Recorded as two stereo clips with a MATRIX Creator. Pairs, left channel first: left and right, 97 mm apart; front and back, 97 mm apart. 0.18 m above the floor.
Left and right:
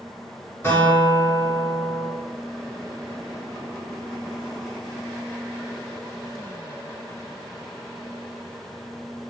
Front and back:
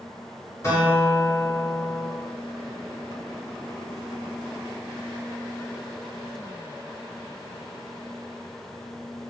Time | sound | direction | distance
0.6 | a guitar | 40° left | 1.8 m